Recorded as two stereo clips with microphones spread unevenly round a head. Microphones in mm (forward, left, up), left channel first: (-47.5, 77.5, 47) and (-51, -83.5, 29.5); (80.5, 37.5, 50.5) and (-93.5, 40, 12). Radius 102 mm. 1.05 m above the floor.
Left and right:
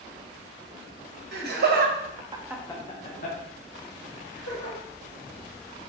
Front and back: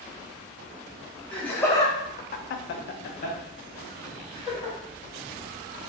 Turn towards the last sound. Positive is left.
turn(degrees=65)